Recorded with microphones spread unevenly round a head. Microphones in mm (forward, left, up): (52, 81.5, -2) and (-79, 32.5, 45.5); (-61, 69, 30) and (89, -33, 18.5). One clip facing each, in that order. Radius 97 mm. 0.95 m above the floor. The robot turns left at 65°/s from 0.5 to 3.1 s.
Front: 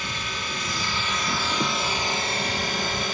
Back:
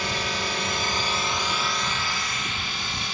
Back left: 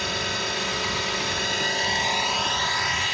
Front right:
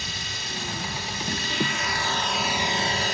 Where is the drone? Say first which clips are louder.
Back 5 dB, back left 9 dB; 175° left; by 3.1 s 10° left.